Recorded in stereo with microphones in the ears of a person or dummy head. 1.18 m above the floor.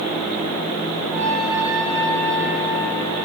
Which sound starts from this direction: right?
A trumpet, at 1.1 s.